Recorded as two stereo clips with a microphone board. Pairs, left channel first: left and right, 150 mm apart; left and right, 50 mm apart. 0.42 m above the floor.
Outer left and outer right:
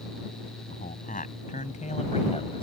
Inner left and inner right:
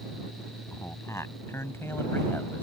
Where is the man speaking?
70° left (ahead or behind); by 2.6 s 40° left (ahead or behind).